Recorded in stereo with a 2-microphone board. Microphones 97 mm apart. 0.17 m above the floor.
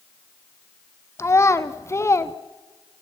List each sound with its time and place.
1.2 s a child speaking: 30° left (ahead or behind), 0.7 m